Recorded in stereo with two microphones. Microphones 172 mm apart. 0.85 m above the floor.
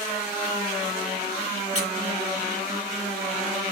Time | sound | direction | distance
1.8 | a squeak | 45° left (ahead or behind) | 1.2 m